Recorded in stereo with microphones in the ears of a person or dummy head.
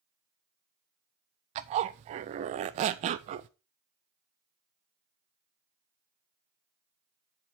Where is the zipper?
35° right (ahead or behind), 0.5 m.